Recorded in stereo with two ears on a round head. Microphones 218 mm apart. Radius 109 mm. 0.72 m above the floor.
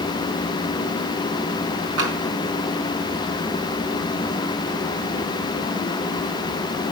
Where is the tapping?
55° right (ahead or behind), 3 m.